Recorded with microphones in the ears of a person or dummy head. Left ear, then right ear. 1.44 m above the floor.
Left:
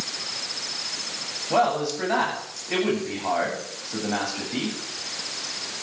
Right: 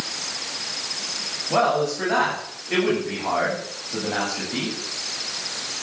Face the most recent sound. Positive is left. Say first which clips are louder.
# right 1 dB
turn(degrees=20)  # may be behind; listen again after turning